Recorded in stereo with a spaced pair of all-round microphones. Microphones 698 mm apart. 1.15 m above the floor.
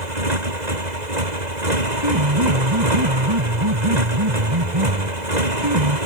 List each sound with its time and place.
0.0 s a motorcycle: 80° right
2.0 s a piano: 40° right (ahead or behind)